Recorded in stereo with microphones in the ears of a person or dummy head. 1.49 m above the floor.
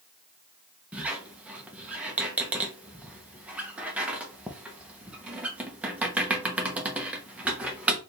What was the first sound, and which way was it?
A squeak, 5° right (ahead or behind).